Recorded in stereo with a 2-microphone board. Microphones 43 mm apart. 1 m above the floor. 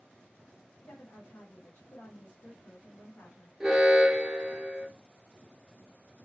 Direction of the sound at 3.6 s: 10° right (ahead or behind).